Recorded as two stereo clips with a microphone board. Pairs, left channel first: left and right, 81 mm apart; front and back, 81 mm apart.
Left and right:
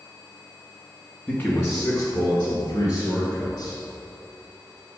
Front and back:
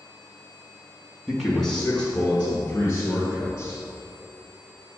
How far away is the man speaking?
About 1.2 m.